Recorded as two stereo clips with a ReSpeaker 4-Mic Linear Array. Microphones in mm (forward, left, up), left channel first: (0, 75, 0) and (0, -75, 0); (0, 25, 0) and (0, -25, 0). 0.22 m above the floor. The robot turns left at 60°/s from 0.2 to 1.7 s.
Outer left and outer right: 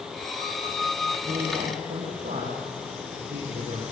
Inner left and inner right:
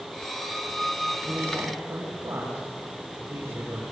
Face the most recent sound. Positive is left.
turn(degrees=-75)  # may be behind; listen again after turning